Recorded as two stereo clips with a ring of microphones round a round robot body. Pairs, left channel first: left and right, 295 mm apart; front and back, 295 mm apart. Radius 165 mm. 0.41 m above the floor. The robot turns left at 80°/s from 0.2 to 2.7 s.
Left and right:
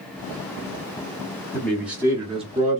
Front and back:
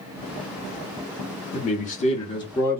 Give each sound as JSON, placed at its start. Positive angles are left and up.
{"t": 1.5, "sound": "a man speaking", "azimuth_deg": 20, "distance_m": 1.3}